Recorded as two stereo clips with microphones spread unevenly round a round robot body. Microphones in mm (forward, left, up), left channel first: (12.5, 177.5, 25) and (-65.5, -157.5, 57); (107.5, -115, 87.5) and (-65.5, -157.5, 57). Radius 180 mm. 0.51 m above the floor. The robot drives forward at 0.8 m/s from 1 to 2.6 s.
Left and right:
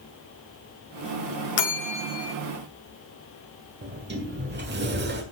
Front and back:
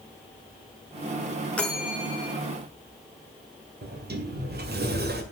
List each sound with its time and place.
1.6 s a bell: 105° left, 1.3 m; by 2.3 s 125° left, 1.5 m
3.8 s a sliding door: 165° right, 2 m